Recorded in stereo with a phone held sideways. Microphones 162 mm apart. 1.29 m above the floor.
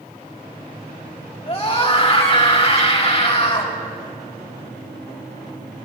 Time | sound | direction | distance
1.5 | a scream | 40° left (ahead or behind) | 3.5 m